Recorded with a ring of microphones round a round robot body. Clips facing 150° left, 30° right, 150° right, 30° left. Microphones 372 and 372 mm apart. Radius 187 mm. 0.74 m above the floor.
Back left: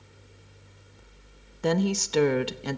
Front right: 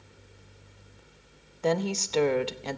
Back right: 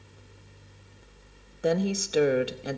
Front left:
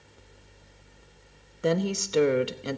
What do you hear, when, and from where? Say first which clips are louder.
1.6 s a woman speaking: back left 2 dB, even; 110° left, 0.7 m